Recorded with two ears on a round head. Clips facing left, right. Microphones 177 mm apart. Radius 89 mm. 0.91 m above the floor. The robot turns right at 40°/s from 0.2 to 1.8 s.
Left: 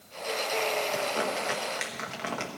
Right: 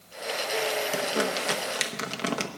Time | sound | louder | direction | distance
0.9 | crumpling | right 2 dB | 50° right (ahead or behind) | 1.1 m